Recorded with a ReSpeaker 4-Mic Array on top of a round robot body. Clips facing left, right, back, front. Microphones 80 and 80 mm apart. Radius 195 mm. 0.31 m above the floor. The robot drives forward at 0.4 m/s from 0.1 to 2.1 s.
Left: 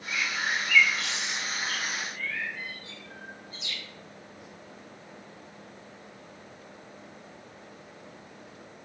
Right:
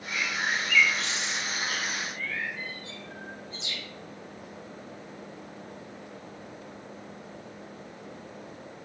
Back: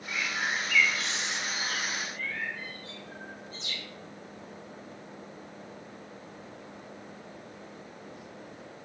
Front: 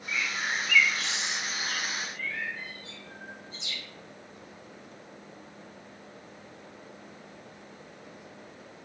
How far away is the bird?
About 1.7 m.